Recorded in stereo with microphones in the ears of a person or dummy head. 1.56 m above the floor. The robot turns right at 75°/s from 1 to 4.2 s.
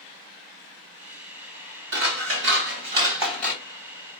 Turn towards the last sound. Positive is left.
turn(degrees=70)